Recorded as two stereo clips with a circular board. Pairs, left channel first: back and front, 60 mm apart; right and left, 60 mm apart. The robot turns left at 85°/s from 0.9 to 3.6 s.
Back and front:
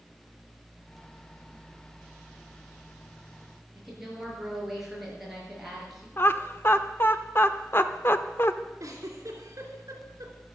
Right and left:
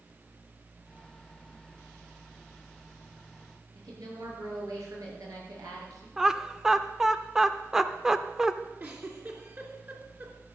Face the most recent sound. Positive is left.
turn(degrees=35)